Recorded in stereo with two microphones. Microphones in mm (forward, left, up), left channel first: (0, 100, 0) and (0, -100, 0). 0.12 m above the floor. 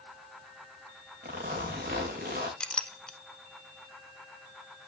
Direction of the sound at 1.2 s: 45° right (ahead or behind).